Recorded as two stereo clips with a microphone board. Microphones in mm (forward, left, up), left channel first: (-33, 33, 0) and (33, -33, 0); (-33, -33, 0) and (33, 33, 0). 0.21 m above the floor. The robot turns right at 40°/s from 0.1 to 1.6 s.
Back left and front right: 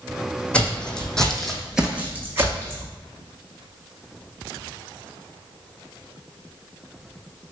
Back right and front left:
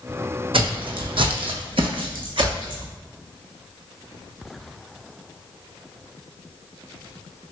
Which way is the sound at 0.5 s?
60° left.